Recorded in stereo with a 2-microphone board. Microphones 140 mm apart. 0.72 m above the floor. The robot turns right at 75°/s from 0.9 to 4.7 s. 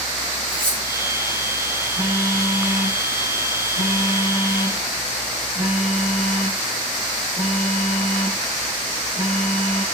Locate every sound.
0.5 s cutlery clinking: 75° right (ahead or behind), 3.5 m
2.0 s a phone buzzing: 5° right, 7 m; by 9.8 s 160° right, 7 m